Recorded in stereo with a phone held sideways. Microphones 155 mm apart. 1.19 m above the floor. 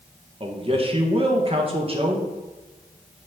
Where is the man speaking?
40° right (ahead or behind), 1.3 m.